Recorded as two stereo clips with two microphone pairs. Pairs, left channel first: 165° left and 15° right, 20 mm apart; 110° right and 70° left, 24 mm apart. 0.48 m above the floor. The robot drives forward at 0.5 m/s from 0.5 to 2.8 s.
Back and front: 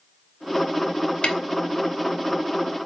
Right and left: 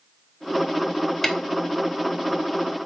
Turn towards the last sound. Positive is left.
turn(degrees=180)